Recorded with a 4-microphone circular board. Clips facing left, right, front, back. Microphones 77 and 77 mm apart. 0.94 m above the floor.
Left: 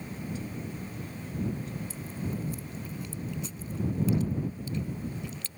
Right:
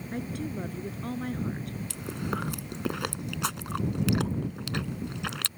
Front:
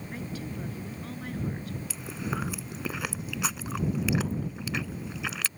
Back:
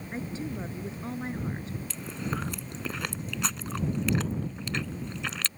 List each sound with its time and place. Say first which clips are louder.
0.1 s a woman speaking: right 5 dB, back 3 dB; 115° right
1.9 s chewing: right 3 dB, even; 85° right